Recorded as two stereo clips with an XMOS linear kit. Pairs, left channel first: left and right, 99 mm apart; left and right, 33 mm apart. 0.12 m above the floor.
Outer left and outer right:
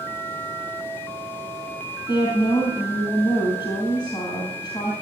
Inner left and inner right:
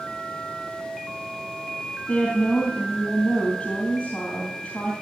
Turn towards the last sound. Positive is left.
turn(degrees=50)  # may be behind; listen again after turning